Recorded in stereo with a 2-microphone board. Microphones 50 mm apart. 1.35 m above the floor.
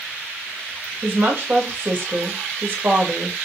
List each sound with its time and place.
1.0 s a woman speaking: 35° right (ahead or behind), 1.8 m